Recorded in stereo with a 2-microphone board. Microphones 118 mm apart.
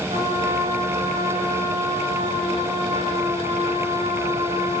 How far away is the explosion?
I don't hear an explosion.